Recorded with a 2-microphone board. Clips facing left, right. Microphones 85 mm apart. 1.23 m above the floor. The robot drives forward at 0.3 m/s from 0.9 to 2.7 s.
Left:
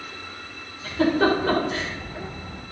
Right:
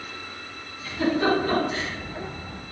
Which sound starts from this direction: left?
A giggle, at 0.8 s.